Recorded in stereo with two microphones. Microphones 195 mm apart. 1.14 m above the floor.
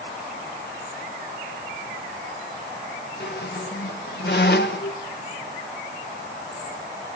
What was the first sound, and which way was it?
A squeak, 65° left (ahead or behind).